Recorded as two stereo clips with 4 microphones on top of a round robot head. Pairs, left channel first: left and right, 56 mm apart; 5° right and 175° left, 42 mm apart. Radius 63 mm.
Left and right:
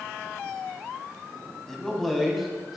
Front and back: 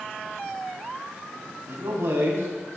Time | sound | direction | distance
1.7 | a man speaking | 175° left | 3 m